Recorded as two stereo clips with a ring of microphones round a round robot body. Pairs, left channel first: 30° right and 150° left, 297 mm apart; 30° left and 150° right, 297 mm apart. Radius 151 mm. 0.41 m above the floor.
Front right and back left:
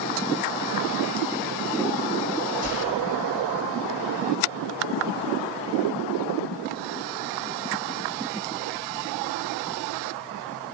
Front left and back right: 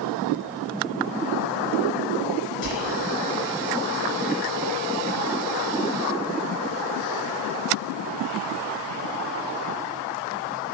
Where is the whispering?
75° left, 1.4 m.